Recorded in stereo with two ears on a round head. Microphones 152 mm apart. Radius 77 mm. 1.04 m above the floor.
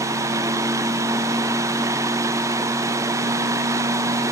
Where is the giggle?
I don't hear a giggle.